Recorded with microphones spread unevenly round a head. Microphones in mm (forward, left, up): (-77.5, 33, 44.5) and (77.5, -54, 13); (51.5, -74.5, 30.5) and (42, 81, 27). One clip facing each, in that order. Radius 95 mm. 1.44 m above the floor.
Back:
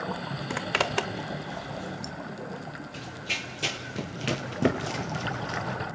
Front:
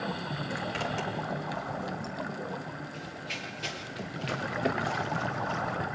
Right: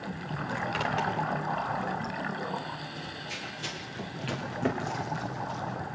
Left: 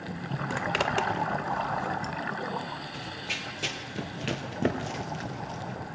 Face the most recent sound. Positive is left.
turn(degrees=175)